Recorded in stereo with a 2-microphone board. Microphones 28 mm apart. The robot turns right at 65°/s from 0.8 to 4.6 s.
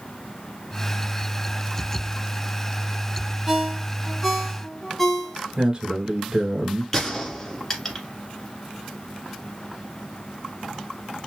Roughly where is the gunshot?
Centre.